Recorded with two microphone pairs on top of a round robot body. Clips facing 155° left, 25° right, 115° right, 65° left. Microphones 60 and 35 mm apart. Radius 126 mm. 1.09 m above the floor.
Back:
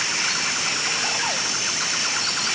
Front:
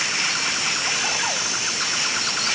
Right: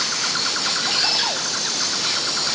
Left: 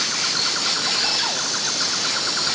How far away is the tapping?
I don't hear tapping.